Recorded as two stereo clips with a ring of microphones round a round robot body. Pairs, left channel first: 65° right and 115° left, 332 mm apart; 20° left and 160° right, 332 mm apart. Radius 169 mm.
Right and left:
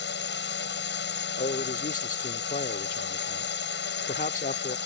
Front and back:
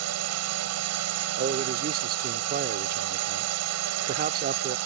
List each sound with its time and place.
0.0 s a drone: 120° right
1.4 s a man speaking: 115° right